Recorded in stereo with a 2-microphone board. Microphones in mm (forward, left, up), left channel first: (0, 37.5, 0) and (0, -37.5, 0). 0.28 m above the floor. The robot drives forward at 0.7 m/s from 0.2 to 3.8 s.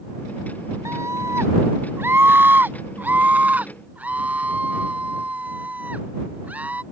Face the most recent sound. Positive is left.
turn(degrees=-20)  # may be behind; listen again after turning